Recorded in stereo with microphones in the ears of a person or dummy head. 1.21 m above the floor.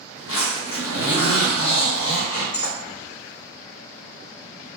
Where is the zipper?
75° left (ahead or behind), 1.2 m.